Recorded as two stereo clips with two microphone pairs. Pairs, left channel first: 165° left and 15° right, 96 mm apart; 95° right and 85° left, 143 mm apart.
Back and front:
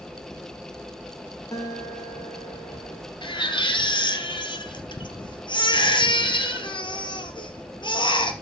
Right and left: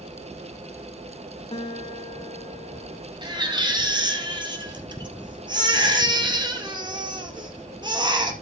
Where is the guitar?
140° right, 2.5 m.